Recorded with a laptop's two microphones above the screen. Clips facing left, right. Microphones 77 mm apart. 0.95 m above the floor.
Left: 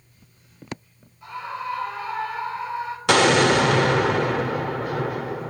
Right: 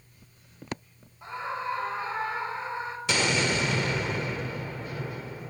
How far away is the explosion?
About 1.5 m.